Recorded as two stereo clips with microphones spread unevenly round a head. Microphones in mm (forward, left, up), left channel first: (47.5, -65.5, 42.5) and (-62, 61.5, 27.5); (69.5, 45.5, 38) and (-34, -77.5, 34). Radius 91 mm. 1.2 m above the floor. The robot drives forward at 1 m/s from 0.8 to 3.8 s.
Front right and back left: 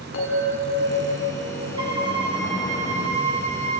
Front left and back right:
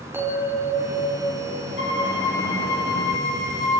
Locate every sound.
0.1 s a bell: 55° right, 6.5 m; by 2.1 s 65° right, 5.5 m
1.8 s a violin: 65° left, 4.5 m; by 3.8 s 90° left, 4 m